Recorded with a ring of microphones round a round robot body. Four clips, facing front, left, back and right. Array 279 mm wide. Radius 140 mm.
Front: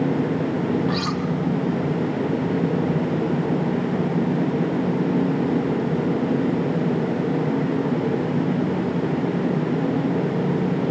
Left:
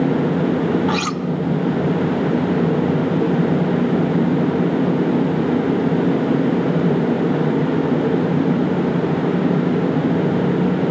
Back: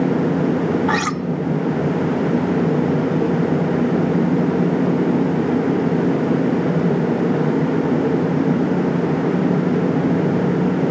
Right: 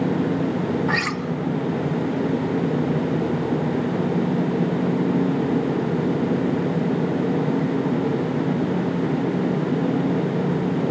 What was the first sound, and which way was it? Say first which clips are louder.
Cutlery clinking: left 4 dB, back 4 dB; 165° left.